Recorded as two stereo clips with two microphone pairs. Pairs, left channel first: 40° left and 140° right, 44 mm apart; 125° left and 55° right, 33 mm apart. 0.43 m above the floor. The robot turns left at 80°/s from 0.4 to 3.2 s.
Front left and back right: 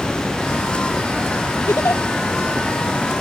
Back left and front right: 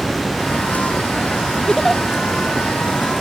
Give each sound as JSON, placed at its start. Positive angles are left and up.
{"t": 1.7, "sound": "a giggle", "azimuth_deg": 50}